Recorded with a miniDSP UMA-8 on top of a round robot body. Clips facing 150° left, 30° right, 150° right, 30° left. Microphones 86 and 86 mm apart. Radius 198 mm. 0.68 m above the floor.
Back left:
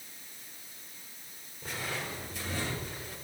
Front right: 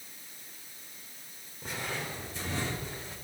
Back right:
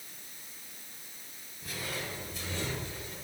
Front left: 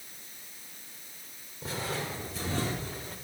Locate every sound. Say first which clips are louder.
1.6 s footsteps: front right 1 dB, front left 4 dB; 45° left, 2.5 m; by 3.1 s 25° left, 4 m